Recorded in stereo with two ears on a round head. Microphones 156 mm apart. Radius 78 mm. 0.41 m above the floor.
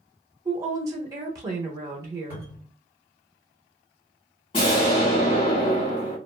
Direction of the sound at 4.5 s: 35° left (ahead or behind).